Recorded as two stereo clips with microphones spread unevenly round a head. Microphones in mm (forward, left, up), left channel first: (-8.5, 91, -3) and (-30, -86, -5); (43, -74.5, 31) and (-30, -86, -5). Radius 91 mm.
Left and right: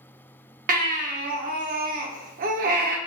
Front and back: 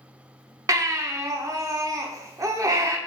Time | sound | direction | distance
0.7 | a baby crying | 110° right | 0.7 m